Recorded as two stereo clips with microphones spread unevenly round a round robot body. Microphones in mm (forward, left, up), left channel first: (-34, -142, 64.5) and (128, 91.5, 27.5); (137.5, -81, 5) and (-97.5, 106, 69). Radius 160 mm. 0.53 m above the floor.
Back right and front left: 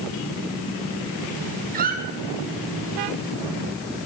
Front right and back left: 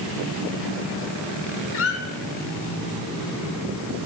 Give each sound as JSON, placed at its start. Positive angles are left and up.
{"t": 1.7, "sound": "a squeak", "azimuth_deg": 0, "distance_m": 1.1}